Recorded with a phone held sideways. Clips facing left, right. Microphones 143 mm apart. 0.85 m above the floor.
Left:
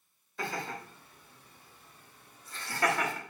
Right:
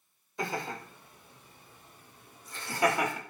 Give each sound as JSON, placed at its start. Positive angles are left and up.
{"t": 0.4, "sound": "laughter", "side_deg": -20, "distance_m": 4.0}